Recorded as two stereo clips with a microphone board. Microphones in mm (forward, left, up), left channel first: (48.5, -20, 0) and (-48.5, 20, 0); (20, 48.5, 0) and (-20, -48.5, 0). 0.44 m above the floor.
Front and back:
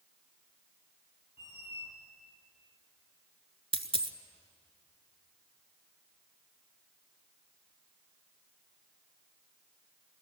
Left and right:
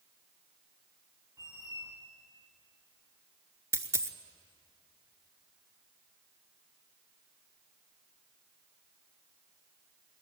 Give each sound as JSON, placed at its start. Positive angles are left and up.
{"t": 1.4, "sound": "a squeak", "azimuth_deg": -55, "distance_m": 2.0}
{"t": 3.7, "sound": "a dropped coin", "azimuth_deg": -175, "distance_m": 0.8}